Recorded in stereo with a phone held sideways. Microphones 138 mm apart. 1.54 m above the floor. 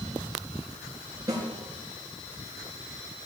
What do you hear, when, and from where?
1.3 s a snare drum: 25° right (ahead or behind), 5 m